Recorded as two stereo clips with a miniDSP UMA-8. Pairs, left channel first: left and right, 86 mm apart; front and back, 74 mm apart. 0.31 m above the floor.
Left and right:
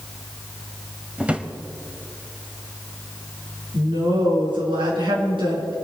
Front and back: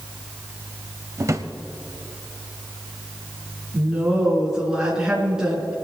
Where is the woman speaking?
100° right, 5 m.